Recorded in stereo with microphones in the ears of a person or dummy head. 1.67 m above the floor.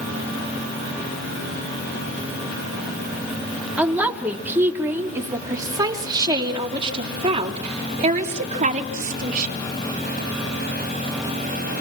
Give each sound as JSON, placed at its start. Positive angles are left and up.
{"t": 3.8, "sound": "a woman speaking", "side_deg": -5, "distance_m": 4.0}